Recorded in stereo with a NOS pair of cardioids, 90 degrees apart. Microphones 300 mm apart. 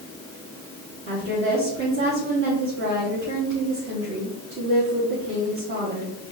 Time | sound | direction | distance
1.1 | a woman speaking | 40° right | 1.8 m